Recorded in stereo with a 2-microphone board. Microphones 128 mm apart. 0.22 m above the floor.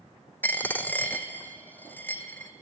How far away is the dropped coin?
About 0.6 m.